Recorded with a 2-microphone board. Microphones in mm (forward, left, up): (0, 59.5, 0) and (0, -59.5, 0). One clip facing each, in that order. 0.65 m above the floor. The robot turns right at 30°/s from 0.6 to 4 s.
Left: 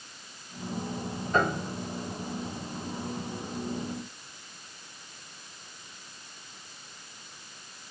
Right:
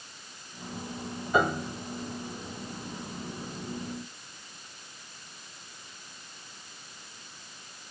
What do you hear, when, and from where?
1.3 s a piano: 10° right (ahead or behind), 0.9 m; by 1.8 s 5° left (ahead or behind), 0.9 m